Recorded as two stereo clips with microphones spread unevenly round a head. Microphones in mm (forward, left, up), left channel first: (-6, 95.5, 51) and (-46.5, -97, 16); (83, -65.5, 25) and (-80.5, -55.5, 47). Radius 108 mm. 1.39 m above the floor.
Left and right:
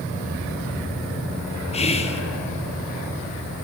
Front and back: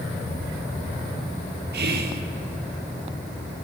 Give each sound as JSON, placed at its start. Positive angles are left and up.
{"t": 1.7, "sound": "whispering", "azimuth_deg": 140, "distance_m": 0.9}